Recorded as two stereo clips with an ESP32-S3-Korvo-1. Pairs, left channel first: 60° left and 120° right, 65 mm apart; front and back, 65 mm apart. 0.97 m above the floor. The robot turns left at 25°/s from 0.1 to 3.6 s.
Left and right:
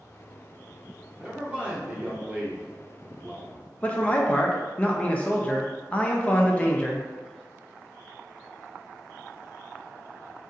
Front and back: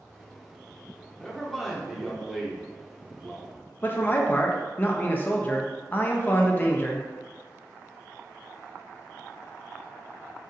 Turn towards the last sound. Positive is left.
turn(degrees=15)